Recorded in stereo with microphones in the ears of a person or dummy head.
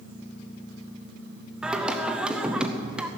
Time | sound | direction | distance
1.6 | singing | 5° right (ahead or behind) | 0.8 m